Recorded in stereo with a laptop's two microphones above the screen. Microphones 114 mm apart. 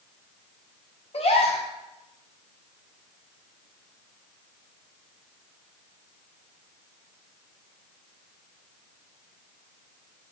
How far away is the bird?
No bird in this recording.